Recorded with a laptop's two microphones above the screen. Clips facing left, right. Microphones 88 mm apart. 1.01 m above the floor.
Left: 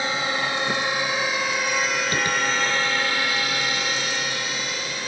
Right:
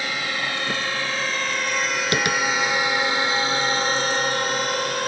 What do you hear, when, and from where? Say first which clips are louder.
0.0 s a drone: left 2 dB; 25° left (ahead or behind); by 5.1 s 55° right (ahead or behind)
2.1 s tapping: right 5 dB; 80° right